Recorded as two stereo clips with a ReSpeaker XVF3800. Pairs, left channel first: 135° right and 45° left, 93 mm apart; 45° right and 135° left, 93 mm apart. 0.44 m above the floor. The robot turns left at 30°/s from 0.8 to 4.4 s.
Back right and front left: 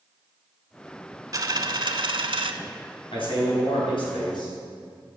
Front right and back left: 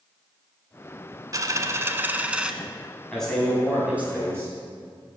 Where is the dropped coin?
90° left, 0.7 m; by 2.5 s 55° left, 0.7 m.